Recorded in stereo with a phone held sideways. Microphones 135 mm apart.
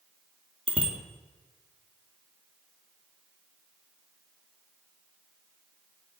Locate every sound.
0.7 s a bicycle bell: 40° right (ahead or behind), 2.5 m